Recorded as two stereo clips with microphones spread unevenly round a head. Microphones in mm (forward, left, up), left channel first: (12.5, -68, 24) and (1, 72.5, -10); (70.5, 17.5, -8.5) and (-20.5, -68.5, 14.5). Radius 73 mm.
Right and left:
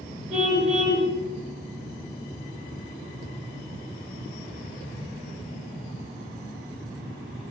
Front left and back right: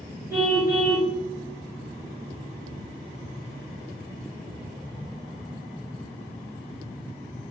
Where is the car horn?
145° left, 7.5 m.